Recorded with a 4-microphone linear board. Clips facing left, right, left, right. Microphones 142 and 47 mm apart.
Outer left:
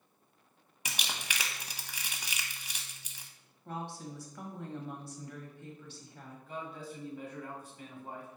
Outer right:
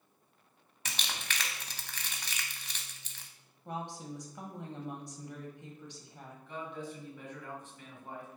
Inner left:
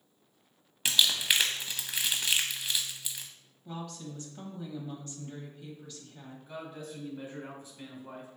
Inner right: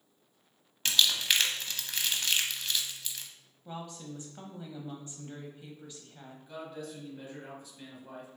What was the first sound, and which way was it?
Crumpling, 10° left (ahead or behind).